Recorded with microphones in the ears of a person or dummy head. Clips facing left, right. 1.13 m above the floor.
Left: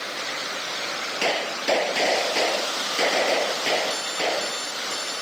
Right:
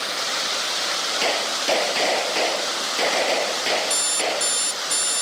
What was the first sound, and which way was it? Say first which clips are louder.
A gunshot: even; 5° left (ahead or behind).